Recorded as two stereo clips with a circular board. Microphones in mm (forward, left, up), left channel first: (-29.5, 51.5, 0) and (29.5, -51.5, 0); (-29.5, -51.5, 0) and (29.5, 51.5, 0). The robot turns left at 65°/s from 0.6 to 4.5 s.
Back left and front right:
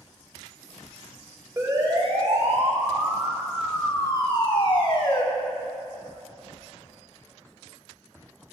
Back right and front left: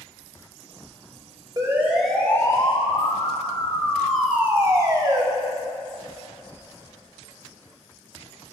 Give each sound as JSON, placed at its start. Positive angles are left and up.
{"t": 1.6, "sound": "a siren", "azimuth_deg": 5, "distance_m": 3.0}